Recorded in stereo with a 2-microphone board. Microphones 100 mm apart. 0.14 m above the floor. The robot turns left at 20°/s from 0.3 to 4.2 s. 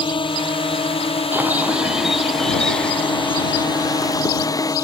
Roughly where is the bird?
Behind.